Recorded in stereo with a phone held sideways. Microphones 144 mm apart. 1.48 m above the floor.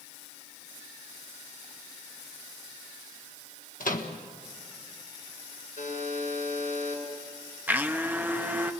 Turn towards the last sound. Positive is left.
turn(degrees=-15)  # may be behind; listen again after turning